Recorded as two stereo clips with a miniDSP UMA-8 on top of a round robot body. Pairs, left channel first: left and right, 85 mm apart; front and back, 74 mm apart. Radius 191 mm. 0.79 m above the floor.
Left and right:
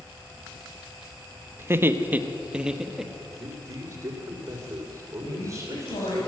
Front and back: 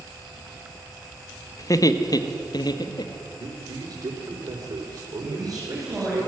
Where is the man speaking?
145° right, 4.5 m.